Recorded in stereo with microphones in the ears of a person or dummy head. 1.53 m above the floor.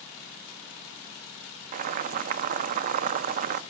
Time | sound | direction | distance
1.7 | boiling | 45° right (ahead or behind) | 0.8 m